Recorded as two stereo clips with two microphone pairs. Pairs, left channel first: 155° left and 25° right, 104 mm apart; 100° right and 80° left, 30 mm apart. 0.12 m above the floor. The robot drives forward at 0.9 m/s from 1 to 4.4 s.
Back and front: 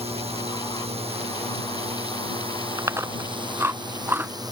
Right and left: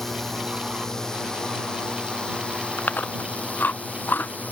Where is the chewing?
85° right; by 4.5 s 95° right.